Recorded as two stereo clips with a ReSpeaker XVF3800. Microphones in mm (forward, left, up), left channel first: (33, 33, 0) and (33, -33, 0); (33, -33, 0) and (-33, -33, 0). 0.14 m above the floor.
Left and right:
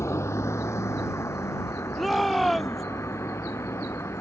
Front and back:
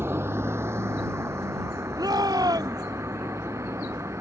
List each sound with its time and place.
0.0 s a vehicle: 130° left; by 4.2 s 135° left
2.0 s a shout: straight behind